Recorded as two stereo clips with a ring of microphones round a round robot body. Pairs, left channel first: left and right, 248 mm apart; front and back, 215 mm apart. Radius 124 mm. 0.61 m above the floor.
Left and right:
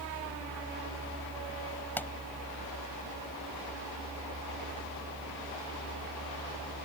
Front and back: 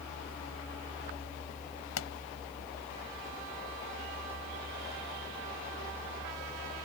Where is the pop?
5° left.